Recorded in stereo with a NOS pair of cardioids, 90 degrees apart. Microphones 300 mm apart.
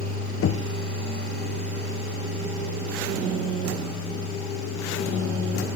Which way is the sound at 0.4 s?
50° left.